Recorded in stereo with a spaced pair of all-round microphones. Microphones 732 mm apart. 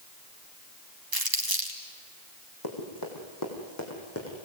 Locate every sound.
1.1 s crumpling: 30° right (ahead or behind), 2.0 m
2.6 s running footsteps: 30° left (ahead or behind), 4.5 m; by 4.4 s 15° left (ahead or behind), 4.5 m